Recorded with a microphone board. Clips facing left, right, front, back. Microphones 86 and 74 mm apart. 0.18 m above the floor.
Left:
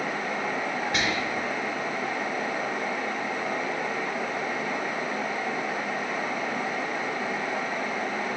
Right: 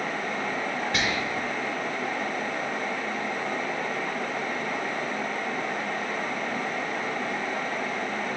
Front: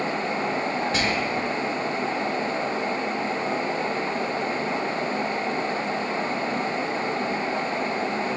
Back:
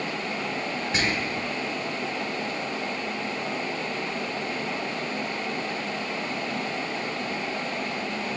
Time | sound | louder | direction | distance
0.9 | whispering | even, front 3 dB | 160° left | 1.0 m